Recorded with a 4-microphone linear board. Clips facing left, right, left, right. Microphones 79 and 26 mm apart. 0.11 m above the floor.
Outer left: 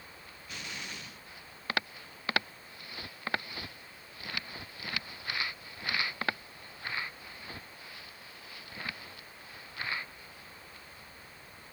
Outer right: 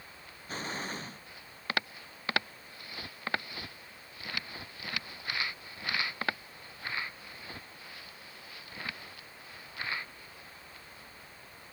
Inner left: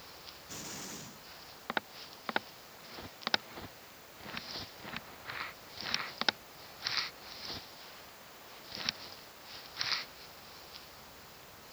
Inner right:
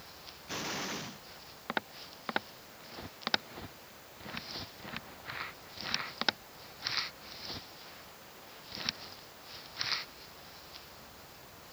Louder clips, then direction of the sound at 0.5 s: Outer right 6 dB, inner right 8 dB; 40° right (ahead or behind).